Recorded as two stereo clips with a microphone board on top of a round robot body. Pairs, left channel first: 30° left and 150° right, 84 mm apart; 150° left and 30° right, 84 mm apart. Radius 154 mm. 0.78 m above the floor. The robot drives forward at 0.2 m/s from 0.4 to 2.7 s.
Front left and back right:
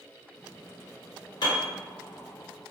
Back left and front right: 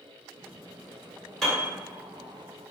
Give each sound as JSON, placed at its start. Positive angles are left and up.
{"t": 1.4, "sound": "a piano", "azimuth_deg": 65, "distance_m": 1.4}